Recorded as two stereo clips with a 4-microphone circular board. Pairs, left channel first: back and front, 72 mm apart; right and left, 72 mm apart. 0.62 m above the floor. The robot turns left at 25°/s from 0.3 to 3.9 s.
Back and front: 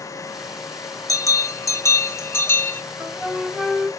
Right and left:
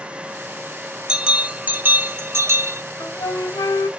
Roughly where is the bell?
Behind.